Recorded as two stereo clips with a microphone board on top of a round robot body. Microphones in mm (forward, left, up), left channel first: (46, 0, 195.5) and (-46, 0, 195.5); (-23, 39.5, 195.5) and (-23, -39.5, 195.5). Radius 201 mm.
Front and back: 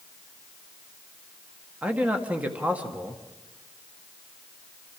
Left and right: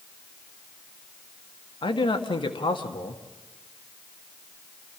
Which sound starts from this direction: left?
A man speaking, at 1.8 s.